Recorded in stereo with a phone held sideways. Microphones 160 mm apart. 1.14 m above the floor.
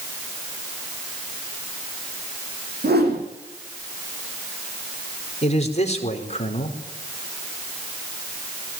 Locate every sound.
2.8 s a whoosh: 80° right, 9 m
5.4 s a man speaking: 45° left (ahead or behind), 4.5 m